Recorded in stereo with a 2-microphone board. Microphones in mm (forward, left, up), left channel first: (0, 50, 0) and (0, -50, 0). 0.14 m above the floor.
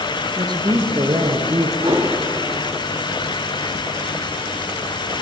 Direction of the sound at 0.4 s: 50° right (ahead or behind).